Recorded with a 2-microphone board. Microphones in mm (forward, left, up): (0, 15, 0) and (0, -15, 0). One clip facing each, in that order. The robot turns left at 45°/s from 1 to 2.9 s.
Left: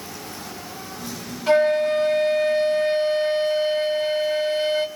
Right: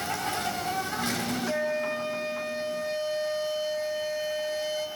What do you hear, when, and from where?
0.0 s an insect: 65° right, 2.5 m; by 5.0 s 150° right, 2.5 m
1.5 s a flute: 120° left, 2.5 m; by 4.9 s 55° left, 2.5 m